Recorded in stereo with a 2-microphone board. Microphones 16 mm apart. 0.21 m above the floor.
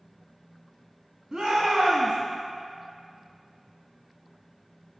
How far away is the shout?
About 1.6 m.